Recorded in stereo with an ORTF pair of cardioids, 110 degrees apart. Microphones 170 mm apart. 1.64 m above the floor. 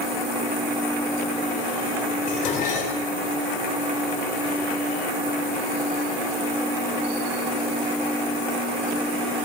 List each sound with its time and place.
2.3 s dishes clattering: 50° left, 3.5 m